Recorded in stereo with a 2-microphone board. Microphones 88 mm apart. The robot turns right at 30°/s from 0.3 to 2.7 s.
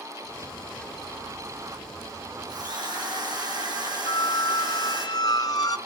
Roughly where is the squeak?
Left.